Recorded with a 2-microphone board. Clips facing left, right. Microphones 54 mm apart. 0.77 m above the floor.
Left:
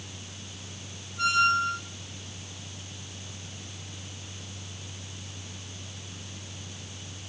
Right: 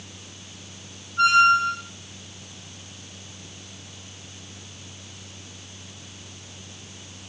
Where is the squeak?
70° right (ahead or behind), 1.5 m.